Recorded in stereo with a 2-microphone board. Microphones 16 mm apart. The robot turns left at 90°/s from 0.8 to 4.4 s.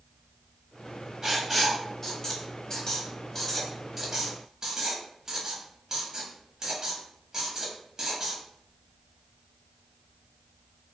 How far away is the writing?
About 0.9 m.